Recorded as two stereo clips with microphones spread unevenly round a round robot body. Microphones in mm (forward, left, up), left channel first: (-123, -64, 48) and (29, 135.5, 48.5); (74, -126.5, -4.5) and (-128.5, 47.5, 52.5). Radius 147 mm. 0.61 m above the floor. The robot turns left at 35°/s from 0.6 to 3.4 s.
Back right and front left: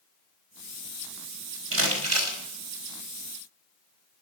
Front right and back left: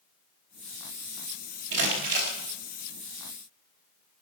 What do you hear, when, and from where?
1.7 s crumpling: 85° left, 4 m; by 2.4 s 65° left, 4 m